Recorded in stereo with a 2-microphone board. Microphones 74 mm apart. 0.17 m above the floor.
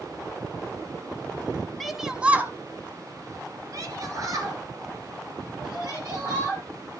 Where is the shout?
5° left (ahead or behind), 1.3 m; by 6.6 s 50° right (ahead or behind), 5.5 m.